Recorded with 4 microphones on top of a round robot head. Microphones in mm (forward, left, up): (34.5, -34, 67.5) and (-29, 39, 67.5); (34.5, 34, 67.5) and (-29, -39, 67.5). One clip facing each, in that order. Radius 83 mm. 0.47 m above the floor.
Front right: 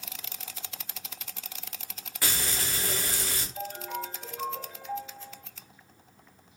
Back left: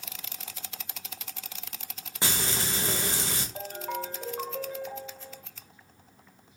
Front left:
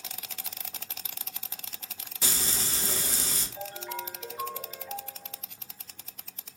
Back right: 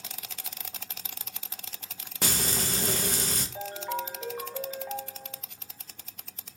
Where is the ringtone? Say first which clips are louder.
Even, back right 5 dB; 175° left, 1.1 m.